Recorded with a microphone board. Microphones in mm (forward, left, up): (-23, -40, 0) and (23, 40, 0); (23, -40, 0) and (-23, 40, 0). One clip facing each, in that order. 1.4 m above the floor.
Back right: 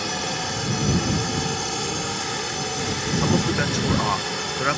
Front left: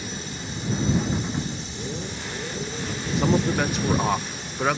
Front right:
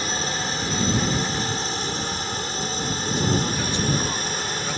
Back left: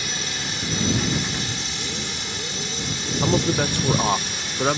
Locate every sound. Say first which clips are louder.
0.0 s a drone: back right 7 dB, front right 4 dB; 110° right; by 4.8 s 105° right
3.2 s a man speaking: front left 1 dB, back left 5 dB; 150° left